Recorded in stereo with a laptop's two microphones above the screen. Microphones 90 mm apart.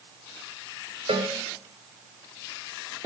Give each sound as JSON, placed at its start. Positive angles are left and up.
{"t": 1.1, "sound": "a cowbell", "side_deg": -70, "distance_m": 1.7}